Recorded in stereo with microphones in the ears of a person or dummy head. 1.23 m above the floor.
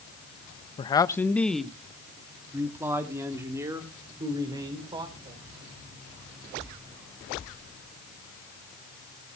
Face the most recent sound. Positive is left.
turn(degrees=-25)  # may be behind; listen again after turning